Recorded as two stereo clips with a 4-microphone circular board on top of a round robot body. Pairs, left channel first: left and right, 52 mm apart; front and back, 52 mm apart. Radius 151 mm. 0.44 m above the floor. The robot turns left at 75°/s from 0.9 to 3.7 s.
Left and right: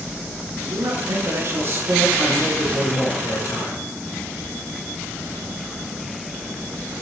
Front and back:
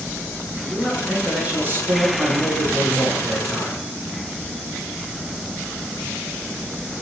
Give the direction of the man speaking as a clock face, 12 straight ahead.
2 o'clock.